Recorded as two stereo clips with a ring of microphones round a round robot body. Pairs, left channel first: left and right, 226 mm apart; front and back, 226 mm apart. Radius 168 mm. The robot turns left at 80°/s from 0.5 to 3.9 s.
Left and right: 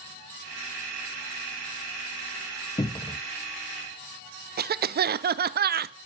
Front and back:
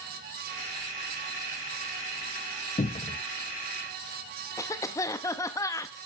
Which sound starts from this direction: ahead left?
A cupboard door, at 2.8 s.